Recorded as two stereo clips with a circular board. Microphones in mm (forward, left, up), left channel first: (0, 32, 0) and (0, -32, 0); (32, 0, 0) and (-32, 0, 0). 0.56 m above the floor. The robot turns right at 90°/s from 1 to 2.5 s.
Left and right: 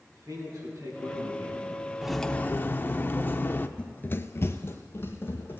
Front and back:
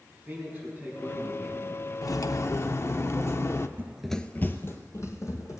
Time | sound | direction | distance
0.1 | a man speaking | 120° right | 5.5 m
2.0 | cutlery clinking | 10° right | 0.5 m
3.8 | running footsteps | 155° left | 0.6 m